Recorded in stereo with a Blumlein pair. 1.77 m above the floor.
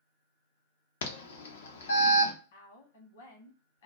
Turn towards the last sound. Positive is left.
turn(degrees=60)